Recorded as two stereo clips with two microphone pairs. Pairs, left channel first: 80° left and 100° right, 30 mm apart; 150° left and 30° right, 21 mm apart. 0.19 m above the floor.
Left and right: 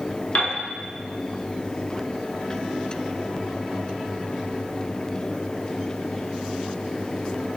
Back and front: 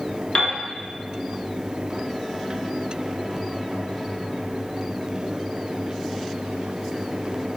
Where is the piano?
115° left, 0.9 m.